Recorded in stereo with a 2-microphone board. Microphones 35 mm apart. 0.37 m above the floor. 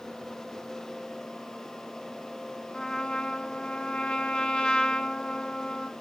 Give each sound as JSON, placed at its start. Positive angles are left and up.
{"t": 2.7, "sound": "a trumpet", "side_deg": 25, "distance_m": 1.0}